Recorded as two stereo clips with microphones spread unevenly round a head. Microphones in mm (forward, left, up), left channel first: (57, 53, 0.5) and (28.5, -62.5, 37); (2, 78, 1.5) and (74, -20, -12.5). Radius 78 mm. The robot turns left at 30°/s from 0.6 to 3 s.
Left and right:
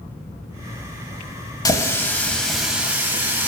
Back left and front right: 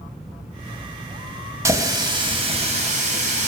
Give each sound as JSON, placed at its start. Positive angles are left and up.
{"t": 1.6, "sound": "a running tap", "azimuth_deg": 15, "distance_m": 0.5}